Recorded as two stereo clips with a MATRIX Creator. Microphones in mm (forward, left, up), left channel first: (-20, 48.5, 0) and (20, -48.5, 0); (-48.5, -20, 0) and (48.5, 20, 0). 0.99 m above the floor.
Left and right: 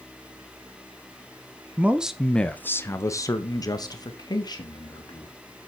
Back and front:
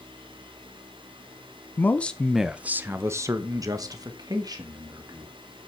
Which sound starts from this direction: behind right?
A man speaking, at 1.8 s.